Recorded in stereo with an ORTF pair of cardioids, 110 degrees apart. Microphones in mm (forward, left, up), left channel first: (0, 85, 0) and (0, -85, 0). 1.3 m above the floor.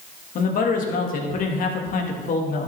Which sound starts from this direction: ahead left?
A man speaking, at 0.3 s.